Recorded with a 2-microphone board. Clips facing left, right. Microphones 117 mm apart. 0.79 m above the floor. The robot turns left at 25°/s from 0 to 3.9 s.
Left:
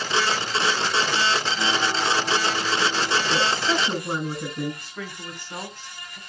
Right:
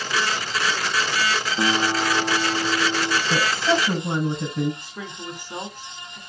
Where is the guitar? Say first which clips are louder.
Right 3 dB; 40° right, 1.5 m; by 3.2 s 80° right, 1.5 m.